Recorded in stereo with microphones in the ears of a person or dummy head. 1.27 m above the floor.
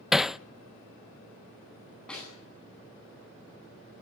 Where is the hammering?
Centre (ahead or behind), 0.5 m.